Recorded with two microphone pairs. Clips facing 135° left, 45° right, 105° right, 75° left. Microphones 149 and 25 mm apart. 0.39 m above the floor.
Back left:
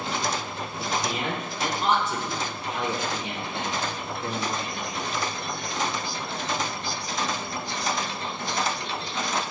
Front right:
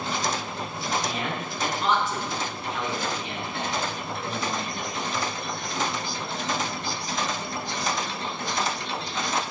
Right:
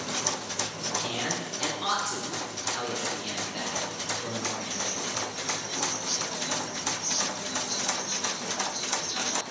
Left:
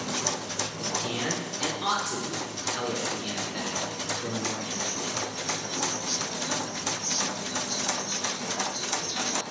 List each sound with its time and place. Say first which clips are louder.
0.8 s a man speaking: back left 1 dB, left 1 dB; 140° left, 0.8 m